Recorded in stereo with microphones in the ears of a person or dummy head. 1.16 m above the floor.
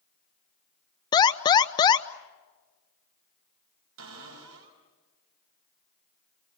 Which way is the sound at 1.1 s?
25° left (ahead or behind).